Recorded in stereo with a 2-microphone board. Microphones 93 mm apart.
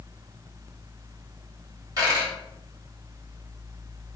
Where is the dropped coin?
40° right (ahead or behind), 1.4 m.